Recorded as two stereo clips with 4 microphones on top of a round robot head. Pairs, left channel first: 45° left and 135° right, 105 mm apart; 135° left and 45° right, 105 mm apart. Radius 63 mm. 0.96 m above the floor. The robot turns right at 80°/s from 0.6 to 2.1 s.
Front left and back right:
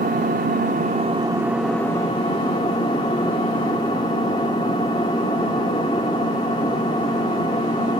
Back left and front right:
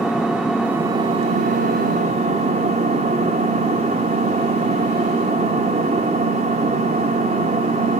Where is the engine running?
130° right, 1.0 m; by 8.0 s 10° right, 1.0 m.